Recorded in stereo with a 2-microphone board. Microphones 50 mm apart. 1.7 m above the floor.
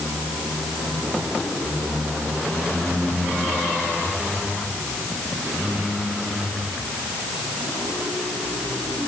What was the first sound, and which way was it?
Only background noise.